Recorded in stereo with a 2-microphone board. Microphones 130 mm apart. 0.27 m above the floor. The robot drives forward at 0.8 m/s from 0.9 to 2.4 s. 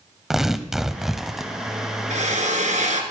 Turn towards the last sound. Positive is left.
turn(degrees=-70)  # may be behind; listen again after turning